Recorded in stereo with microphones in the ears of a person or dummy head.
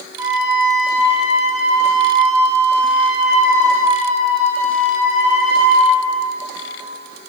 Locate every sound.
0.2 s a flute: 15° right (ahead or behind), 1.7 m